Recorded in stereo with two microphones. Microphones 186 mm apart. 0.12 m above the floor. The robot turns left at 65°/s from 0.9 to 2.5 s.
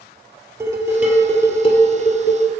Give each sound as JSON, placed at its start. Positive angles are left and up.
{"t": 0.6, "sound": "dishes clattering", "azimuth_deg": -160, "distance_m": 2.0}